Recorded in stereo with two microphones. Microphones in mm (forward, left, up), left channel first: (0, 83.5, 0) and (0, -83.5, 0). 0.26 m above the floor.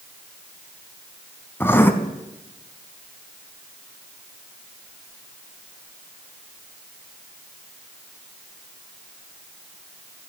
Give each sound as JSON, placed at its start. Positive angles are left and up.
{"t": 1.6, "sound": "writing", "side_deg": 15, "distance_m": 0.5}